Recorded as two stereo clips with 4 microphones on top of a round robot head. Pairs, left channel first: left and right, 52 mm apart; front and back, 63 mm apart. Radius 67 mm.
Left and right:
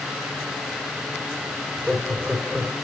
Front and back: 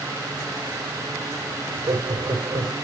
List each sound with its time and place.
1.6 s laughter: 165° right, 3 m